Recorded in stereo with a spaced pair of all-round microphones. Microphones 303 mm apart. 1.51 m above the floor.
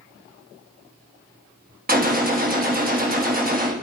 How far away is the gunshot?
About 1.1 m.